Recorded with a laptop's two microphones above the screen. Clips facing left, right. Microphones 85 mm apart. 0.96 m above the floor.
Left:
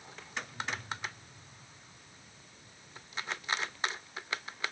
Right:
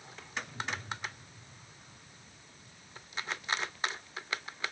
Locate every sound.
0.4 s a whoosh: 20° right (ahead or behind), 9 m